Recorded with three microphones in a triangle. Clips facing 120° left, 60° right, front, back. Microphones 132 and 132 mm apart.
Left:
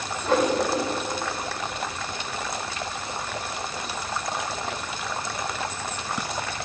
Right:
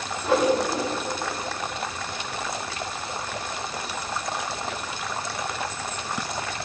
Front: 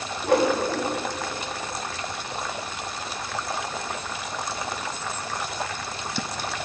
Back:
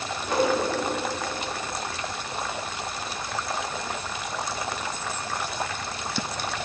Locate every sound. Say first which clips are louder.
0.2 s a whoosh: right 1 dB, front 3 dB; 20° left, 1.4 m